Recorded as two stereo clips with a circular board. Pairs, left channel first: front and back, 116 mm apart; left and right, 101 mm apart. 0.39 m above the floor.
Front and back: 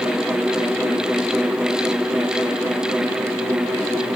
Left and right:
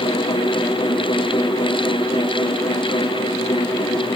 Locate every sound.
Only background noise.